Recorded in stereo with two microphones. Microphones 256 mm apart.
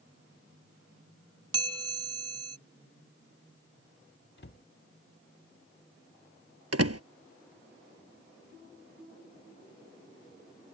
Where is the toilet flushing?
I don't hear a toilet flushing.